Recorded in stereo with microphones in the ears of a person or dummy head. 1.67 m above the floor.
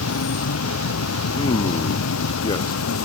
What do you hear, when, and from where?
0.0 s an insect: 85° left
1.4 s a man speaking: 25° left (ahead or behind)